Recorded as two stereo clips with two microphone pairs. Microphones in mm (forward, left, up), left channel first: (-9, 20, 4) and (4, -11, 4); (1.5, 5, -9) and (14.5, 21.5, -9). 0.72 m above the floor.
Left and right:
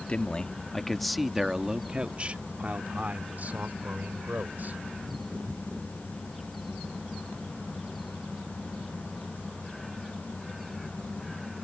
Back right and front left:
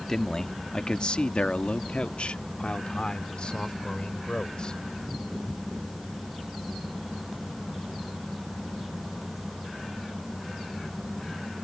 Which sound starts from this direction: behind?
A man speaking, at 0.1 s.